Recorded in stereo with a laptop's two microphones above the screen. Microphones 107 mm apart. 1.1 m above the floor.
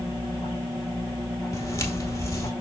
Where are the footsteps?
30° left (ahead or behind), 1.3 m.